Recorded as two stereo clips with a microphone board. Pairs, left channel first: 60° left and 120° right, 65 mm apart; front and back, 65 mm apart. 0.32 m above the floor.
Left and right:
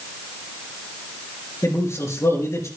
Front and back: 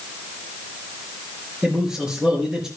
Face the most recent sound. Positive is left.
turn(degrees=100)